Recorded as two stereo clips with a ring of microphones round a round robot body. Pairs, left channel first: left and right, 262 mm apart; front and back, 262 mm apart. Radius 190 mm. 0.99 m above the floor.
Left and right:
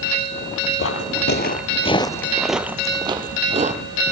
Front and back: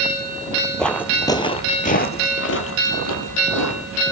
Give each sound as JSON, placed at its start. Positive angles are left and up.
{"t": 0.8, "sound": "footsteps", "azimuth_deg": 85, "distance_m": 1.4}